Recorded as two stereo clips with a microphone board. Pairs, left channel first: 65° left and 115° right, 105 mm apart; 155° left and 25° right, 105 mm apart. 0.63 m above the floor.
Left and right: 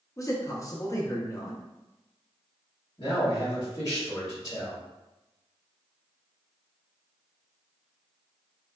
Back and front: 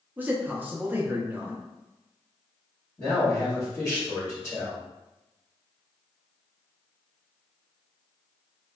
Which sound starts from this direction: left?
A man speaking, at 3.0 s.